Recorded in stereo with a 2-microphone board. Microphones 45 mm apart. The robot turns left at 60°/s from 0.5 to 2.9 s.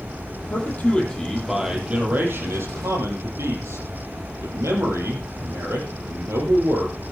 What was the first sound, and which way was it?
A man speaking, 55° left.